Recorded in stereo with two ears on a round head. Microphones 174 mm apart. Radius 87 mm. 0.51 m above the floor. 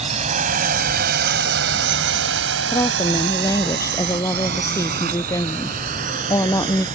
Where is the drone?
35° right (ahead or behind); by 7.0 s 40° right (ahead or behind).